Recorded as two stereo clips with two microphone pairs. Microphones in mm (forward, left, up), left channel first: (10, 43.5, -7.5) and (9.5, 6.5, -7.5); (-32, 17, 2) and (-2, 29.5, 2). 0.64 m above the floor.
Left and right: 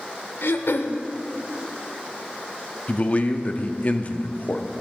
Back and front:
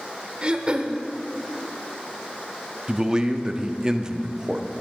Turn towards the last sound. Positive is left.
turn(degrees=80)